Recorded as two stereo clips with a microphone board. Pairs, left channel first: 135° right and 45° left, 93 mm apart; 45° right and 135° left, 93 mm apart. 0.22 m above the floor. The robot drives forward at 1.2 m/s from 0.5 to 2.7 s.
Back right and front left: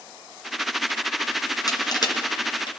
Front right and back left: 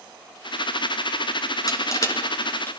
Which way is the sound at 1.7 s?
90° right.